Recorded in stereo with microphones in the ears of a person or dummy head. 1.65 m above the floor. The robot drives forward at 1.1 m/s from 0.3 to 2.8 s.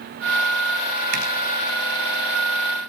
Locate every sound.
1.1 s a zipper: 55° right (ahead or behind), 4 m; by 1.2 s 50° right (ahead or behind), 4 m